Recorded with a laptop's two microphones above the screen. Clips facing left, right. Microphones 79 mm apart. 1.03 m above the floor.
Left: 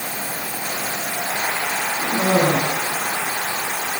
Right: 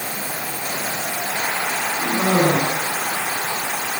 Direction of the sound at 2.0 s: 20° right (ahead or behind).